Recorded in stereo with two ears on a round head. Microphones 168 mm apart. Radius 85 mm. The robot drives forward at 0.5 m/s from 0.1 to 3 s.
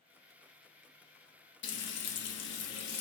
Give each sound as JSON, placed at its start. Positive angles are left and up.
{"t": 1.6, "sound": "frying", "side_deg": 60, "distance_m": 1.3}